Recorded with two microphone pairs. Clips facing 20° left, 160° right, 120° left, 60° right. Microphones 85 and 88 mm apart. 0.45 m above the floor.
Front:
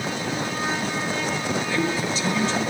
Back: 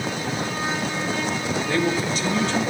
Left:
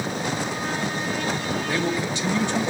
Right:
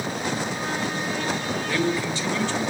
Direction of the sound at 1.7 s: 175° right.